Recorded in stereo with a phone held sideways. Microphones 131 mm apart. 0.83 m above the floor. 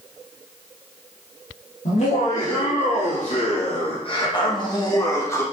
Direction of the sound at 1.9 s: 65° left (ahead or behind).